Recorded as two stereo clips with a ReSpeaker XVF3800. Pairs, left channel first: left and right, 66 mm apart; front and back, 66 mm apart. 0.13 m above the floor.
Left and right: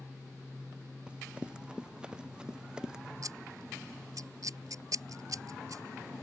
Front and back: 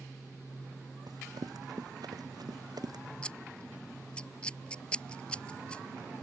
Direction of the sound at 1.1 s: 165° right.